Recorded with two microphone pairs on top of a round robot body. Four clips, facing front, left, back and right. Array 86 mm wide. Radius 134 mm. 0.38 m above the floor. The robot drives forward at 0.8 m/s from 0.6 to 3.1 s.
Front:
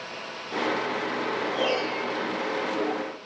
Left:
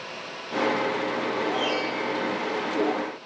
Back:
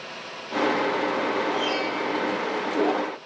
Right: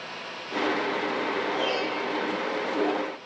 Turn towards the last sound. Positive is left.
turn(degrees=-25)